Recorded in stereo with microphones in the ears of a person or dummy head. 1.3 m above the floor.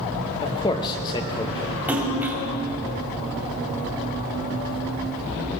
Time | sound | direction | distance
0.4 | a man speaking | 20° left (ahead or behind) | 1.1 m
1.9 | a splash | 10° right (ahead or behind) | 2 m